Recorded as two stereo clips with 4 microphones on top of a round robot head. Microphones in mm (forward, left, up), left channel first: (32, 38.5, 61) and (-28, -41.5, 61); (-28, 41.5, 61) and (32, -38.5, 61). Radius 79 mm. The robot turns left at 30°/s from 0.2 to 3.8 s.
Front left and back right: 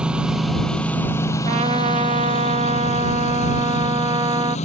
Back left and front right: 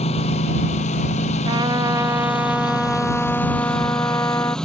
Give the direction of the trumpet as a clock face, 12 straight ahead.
3 o'clock.